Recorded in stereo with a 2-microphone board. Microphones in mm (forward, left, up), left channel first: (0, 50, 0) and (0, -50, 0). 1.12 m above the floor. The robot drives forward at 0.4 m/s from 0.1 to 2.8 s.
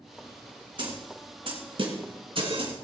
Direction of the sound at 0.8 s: 55° right (ahead or behind).